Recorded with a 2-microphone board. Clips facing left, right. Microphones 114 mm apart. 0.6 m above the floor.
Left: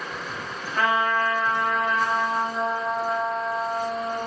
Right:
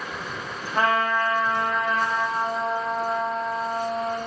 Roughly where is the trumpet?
Right.